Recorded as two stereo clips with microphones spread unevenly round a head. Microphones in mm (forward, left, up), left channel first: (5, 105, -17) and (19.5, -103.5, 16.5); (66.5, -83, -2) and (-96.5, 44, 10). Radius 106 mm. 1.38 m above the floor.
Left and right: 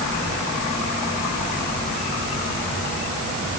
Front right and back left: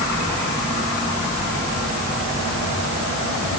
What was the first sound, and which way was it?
Only background noise.